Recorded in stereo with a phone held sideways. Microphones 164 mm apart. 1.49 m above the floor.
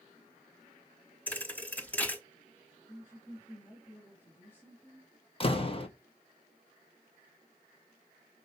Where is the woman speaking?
15° left (ahead or behind), 3.5 m.